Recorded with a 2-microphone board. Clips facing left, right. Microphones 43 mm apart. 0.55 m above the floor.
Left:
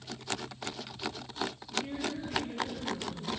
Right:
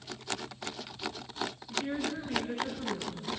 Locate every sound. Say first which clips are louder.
1.7 s a woman speaking: right 4 dB; 75° right (ahead or behind), 6.5 m; by 3.3 s 85° right, 6 m